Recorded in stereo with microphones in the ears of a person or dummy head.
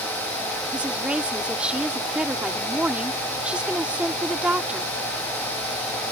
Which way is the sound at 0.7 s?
5° right (ahead or behind).